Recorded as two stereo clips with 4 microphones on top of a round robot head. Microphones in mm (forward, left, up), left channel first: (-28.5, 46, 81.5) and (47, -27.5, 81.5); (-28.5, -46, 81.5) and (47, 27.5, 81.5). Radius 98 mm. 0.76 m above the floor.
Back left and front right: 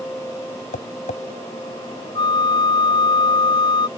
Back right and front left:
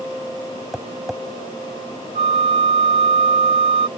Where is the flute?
85° left.